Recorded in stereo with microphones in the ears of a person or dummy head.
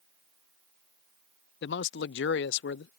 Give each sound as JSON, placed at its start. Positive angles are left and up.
{"t": 1.6, "sound": "a man speaking", "side_deg": 60}